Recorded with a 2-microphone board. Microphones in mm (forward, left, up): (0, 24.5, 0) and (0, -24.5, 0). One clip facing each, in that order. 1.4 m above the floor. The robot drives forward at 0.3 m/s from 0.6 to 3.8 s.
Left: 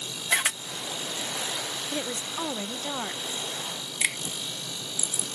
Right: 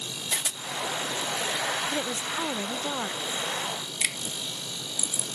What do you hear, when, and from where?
0.3 s a camera shutter: 60° left (ahead or behind)
1.9 s a woman speaking: 5° right (ahead or behind)
4.0 s a finger snap: 15° left (ahead or behind)